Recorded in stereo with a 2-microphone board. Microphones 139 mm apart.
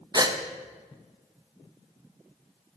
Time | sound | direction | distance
0.1 | a gasp | 30° right (ahead or behind) | 0.8 m